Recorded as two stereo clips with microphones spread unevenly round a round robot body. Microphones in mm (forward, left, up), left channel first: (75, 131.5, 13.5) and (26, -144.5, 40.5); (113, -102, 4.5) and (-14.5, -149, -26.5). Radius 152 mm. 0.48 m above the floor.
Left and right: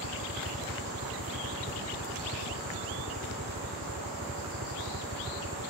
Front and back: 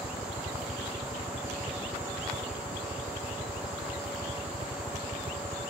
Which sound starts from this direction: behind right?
A helicopter, at 0.0 s.